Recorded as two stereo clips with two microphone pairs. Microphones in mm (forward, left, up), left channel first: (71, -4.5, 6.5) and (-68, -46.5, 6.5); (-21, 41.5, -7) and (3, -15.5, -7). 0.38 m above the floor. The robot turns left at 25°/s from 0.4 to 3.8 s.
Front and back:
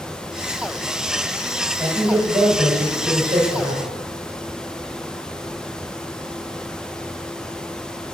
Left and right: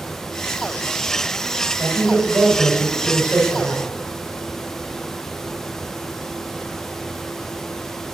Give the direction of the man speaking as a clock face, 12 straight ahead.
3 o'clock.